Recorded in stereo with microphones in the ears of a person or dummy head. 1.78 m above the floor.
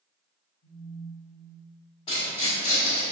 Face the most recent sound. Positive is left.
turn(degrees=35)  # may be behind; listen again after turning